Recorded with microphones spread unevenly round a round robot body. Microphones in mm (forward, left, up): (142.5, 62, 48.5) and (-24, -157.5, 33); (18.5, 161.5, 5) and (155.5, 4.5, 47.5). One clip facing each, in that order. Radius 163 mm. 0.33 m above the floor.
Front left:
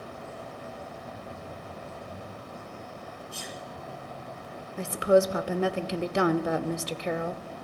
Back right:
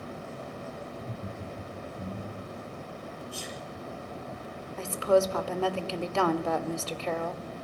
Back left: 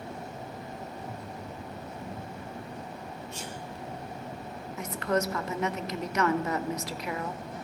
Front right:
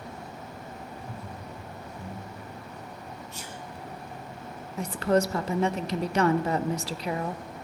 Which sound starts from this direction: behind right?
Laughter, at 0.9 s.